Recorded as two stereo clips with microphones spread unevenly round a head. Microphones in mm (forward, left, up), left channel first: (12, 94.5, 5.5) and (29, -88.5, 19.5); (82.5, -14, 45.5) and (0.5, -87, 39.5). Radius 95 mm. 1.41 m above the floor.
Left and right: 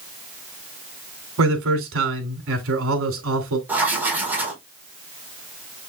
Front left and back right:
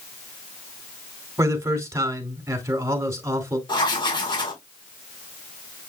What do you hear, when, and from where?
1.4 s a man speaking: 75° right, 3 m
3.7 s writing: 5° right, 4.5 m